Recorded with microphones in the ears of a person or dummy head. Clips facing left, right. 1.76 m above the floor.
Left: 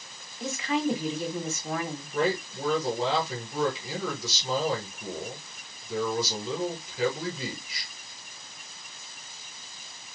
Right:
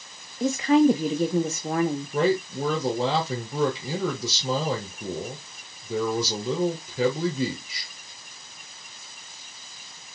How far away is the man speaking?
About 3 m.